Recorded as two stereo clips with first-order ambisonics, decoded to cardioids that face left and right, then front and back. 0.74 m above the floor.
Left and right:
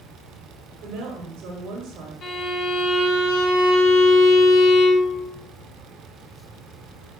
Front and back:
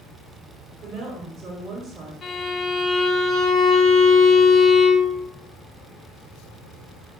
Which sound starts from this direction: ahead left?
A violin, at 2.2 s.